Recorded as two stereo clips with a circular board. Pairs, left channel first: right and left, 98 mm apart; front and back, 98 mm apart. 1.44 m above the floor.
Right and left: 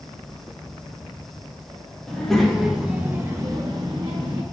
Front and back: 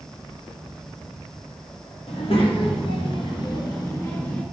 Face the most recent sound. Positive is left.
turn(degrees=70)